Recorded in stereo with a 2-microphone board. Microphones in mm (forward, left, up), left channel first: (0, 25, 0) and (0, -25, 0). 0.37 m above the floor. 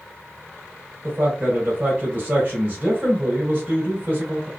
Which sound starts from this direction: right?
A man speaking, at 1.0 s.